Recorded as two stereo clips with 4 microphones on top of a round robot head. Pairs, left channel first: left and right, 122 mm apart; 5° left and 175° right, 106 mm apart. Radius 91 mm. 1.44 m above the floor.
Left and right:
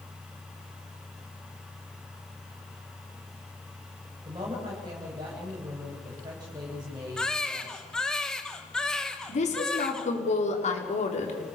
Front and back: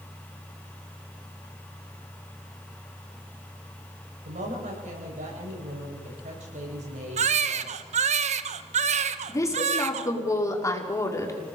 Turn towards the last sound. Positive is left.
turn(degrees=65)